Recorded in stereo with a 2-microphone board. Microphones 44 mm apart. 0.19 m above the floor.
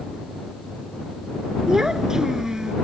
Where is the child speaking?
15° right (ahead or behind).